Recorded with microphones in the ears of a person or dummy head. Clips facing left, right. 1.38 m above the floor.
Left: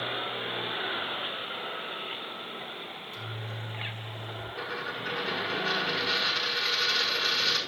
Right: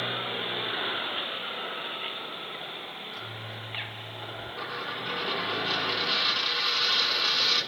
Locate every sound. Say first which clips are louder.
3.0 s a microwave: even; 35° left (ahead or behind), 6 m
4.6 s a dropped coin: left 1 dB; 20° left (ahead or behind), 6.5 m